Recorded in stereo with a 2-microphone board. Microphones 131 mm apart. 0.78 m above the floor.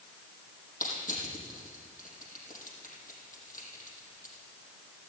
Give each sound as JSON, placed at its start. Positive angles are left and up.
{"t": 0.8, "sound": "crushing", "side_deg": 70, "distance_m": 5.0}